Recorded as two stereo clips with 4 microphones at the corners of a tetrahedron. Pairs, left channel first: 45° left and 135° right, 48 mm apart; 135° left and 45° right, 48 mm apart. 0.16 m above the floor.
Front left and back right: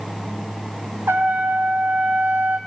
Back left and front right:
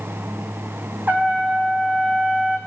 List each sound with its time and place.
1.1 s a trumpet: 100° right, 3 m